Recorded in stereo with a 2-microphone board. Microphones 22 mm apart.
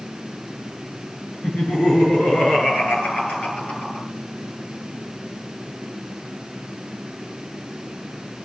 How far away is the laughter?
About 8 m.